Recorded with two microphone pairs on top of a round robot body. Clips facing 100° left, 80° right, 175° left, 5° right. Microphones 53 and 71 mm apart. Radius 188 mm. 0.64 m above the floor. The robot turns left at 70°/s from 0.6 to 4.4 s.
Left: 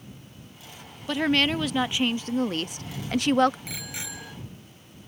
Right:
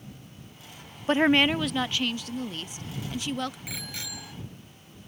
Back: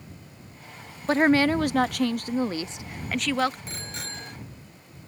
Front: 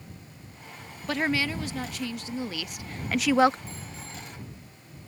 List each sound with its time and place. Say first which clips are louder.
1.1 s a woman speaking: right 2 dB, back 8 dB; 130° right; by 3.6 s 55° left
3.7 s a bicycle bell: left 1 dB, back 3 dB; 165° right; by 4.3 s 150° left